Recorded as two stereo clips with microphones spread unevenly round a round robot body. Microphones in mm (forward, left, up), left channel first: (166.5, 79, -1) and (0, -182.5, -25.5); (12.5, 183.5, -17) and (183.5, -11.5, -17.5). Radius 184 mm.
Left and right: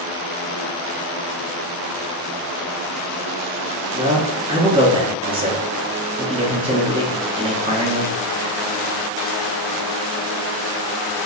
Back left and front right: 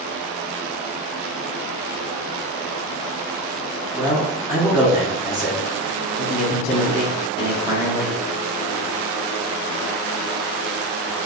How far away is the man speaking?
About 0.6 m.